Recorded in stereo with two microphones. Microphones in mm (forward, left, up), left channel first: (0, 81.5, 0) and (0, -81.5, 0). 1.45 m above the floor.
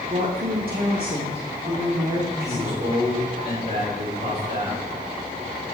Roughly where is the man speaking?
Right.